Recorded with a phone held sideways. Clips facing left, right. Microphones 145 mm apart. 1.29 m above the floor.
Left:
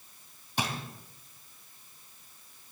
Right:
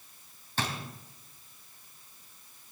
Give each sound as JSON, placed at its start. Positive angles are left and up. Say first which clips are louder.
{"t": 0.6, "sound": "a drawer", "louder": "left 1 dB", "side_deg": 15, "distance_m": 3.0}